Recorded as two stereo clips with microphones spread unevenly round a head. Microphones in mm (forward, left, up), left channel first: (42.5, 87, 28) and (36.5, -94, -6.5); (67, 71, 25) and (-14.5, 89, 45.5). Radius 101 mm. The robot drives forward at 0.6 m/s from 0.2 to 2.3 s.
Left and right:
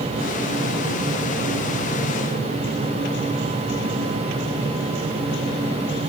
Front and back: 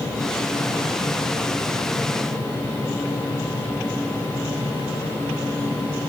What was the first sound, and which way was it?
Only background noise.